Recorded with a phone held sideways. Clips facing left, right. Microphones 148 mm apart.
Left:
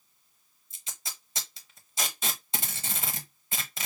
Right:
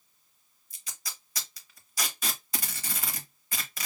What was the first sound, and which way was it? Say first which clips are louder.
Tape being pulled: even; 25° left (ahead or behind).